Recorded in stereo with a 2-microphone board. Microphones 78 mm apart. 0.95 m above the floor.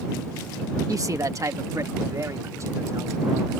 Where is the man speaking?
45° right (ahead or behind); by 3.6 s 40° right (ahead or behind).